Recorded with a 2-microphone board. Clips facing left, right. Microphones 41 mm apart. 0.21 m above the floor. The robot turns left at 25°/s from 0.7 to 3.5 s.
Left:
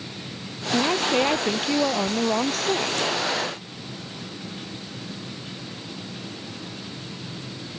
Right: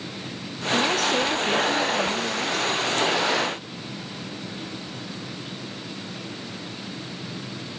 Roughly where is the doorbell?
No doorbell in this recording.